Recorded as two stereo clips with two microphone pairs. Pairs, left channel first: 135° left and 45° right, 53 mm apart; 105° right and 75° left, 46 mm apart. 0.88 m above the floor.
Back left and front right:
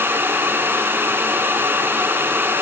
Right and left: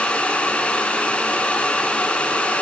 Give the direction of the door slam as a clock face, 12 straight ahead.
No door slam in this recording.